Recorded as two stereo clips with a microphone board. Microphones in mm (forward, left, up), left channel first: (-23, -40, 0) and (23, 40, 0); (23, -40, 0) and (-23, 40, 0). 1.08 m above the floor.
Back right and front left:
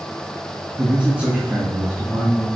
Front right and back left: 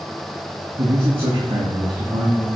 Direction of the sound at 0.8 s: 145° left.